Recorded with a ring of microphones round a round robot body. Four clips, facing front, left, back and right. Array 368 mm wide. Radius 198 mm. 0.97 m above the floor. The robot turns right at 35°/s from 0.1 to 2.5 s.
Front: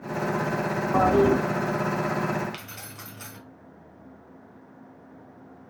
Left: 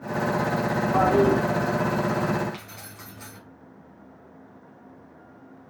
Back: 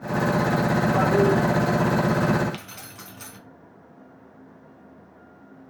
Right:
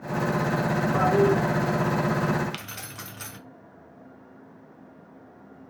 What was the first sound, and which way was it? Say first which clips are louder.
A toilet flushing: left 2 dB, front 2 dB; 35° left.